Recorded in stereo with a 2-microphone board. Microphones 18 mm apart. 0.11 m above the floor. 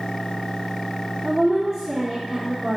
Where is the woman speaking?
35° right (ahead or behind), 4 m.